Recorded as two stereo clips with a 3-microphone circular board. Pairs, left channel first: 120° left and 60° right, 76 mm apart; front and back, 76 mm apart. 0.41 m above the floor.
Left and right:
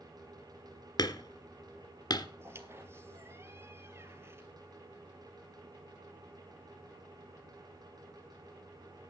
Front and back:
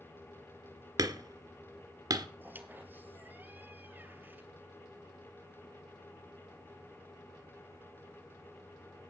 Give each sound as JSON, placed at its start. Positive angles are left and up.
{"t": 1.0, "sound": "hammering", "azimuth_deg": 150, "distance_m": 1.9}
{"t": 2.4, "sound": "a squeak", "azimuth_deg": -115, "distance_m": 1.8}